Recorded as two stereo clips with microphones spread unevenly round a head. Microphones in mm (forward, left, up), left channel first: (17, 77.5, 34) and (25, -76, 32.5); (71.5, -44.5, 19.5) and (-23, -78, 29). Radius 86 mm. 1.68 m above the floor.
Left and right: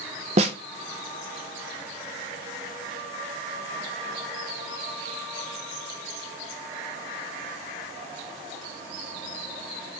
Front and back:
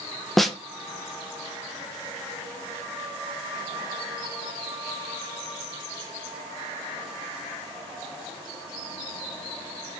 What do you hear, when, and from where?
0.4 s a snare drum: 75° right, 0.8 m